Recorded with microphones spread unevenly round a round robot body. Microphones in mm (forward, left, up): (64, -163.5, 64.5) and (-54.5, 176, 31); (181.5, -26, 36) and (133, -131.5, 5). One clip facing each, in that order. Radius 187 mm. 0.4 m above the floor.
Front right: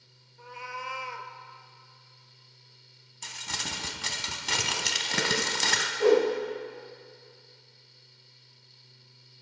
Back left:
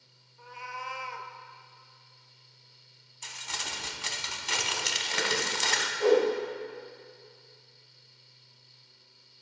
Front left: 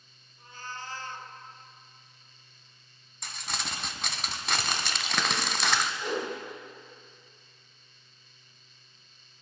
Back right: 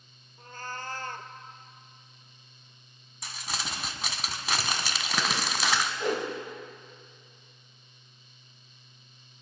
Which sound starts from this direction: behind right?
A whoosh, at 6.0 s.